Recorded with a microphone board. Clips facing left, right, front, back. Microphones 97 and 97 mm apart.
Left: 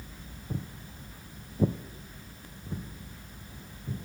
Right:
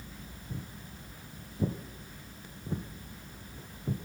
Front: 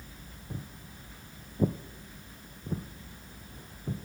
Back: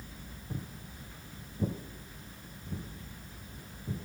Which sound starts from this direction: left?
Footsteps, at 0.5 s.